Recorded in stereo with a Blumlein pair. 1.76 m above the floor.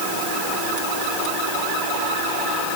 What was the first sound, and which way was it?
Only background noise.